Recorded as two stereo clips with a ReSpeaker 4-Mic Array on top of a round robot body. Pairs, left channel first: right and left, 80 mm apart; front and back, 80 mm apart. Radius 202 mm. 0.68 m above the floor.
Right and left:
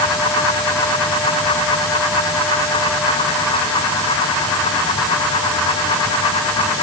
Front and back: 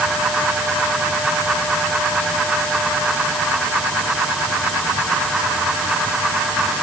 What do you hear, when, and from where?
Only background noise.